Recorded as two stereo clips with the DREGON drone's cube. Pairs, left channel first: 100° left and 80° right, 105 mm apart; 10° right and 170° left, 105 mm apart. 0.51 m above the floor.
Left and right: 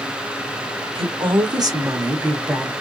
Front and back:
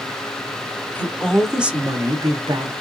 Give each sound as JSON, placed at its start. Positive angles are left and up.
{"t": 0.9, "sound": "a woman speaking", "azimuth_deg": -80, "distance_m": 1.5}